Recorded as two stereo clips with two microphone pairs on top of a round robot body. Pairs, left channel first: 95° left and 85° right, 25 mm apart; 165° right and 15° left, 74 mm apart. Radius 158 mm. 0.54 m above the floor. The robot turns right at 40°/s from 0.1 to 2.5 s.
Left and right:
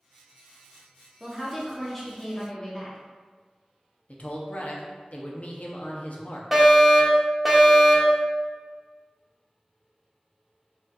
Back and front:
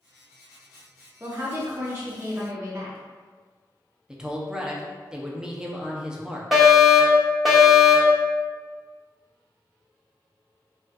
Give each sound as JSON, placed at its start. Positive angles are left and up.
{"t": 1.2, "sound": "a woman speaking", "azimuth_deg": -35, "distance_m": 1.2}
{"t": 4.1, "sound": "a man speaking", "azimuth_deg": 90, "distance_m": 0.9}
{"t": 6.5, "sound": "a fire alarm", "azimuth_deg": -65, "distance_m": 1.6}